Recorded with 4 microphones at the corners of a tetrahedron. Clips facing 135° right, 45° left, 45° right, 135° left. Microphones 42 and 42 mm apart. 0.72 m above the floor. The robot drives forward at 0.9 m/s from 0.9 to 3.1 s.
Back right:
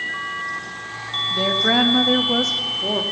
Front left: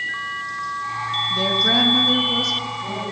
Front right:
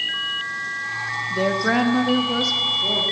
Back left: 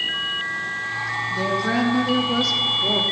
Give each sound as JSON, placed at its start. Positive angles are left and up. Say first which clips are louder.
{"t": 1.3, "sound": "a woman speaking", "louder": "back right 2 dB, front right 3 dB", "azimuth_deg": -55, "distance_m": 1.2}